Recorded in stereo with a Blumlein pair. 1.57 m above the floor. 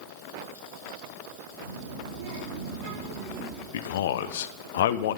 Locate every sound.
1.6 s a child speaking: 65° right, 2.5 m; by 3.6 s 25° right, 1.7 m
3.7 s a man speaking: 60° left, 0.8 m